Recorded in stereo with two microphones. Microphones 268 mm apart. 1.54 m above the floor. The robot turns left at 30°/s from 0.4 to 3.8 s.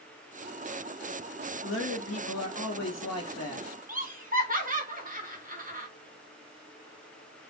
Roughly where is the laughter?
Right.